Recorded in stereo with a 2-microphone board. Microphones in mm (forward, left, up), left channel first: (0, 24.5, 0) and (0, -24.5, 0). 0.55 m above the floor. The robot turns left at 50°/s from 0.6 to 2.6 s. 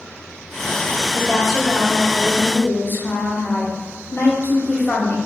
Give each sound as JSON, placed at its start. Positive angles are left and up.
{"t": 1.1, "sound": "a woman speaking", "azimuth_deg": -175, "distance_m": 0.9}